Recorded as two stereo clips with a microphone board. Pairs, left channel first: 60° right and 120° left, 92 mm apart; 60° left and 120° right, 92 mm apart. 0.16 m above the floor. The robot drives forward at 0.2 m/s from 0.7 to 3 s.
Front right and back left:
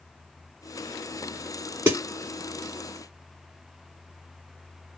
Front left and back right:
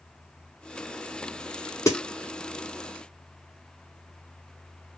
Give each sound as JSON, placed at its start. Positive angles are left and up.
{"t": 1.9, "sound": "a snare drum", "azimuth_deg": 70, "distance_m": 1.6}